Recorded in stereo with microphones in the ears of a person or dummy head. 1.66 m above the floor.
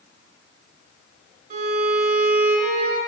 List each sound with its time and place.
1.5 s a violin: 50° right (ahead or behind), 3.5 m